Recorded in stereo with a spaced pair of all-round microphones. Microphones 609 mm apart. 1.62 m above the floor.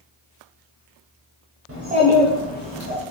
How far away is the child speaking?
About 0.7 m.